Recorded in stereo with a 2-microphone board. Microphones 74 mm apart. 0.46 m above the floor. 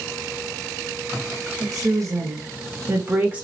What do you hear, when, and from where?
1.6 s a woman speaking: 55° right (ahead or behind), 1.7 m; by 3.4 s 15° right (ahead or behind), 1.2 m